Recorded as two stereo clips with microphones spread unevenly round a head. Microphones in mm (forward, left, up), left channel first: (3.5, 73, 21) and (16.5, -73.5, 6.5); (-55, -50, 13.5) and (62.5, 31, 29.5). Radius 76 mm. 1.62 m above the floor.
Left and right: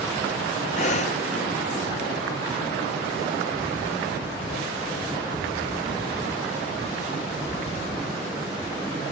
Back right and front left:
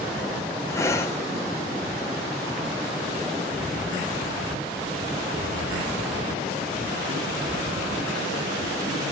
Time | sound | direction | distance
0.7 | breathing | 145° left | 0.7 m